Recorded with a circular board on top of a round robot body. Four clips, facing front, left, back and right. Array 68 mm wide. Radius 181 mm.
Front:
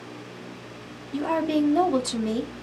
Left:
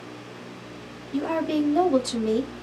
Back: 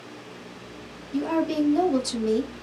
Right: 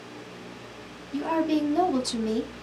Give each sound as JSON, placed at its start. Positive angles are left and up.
{"t": 1.1, "sound": "a woman speaking", "azimuth_deg": 35, "distance_m": 1.1}